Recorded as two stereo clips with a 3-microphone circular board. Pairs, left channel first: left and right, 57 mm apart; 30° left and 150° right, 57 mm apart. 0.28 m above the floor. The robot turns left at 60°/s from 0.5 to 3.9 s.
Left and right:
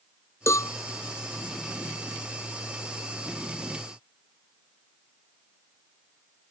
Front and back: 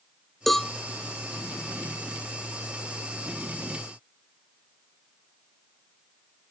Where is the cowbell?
120° left; by 0.7 s 105° left.